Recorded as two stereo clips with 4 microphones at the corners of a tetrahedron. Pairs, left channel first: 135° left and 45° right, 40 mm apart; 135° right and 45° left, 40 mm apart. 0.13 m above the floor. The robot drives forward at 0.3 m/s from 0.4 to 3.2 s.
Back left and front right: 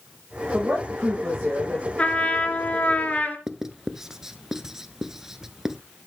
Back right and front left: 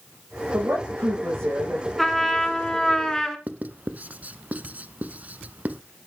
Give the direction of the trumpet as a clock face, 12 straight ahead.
7 o'clock.